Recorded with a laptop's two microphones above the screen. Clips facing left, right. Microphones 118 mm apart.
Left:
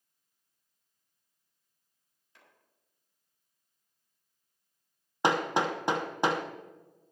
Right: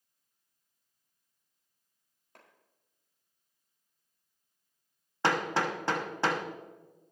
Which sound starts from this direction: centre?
Hammering, at 5.2 s.